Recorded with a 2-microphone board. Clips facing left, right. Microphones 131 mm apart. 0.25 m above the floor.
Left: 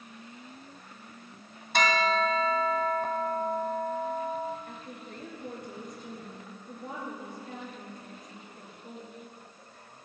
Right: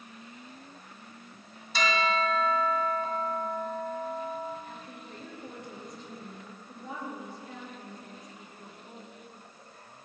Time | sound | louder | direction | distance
1.7 | a bell | left 2 dB | 55° left (ahead or behind) | 1.2 m
4.7 | a woman speaking | left 1 dB | 50° left (ahead or behind) | 5 m